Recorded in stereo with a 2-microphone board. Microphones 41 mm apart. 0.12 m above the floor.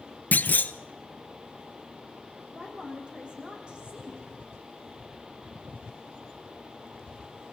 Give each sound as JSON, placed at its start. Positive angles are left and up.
{"t": 0.3, "sound": "a clunk", "side_deg": 50, "distance_m": 0.6}
{"t": 2.5, "sound": "a woman speaking", "side_deg": -25, "distance_m": 5.5}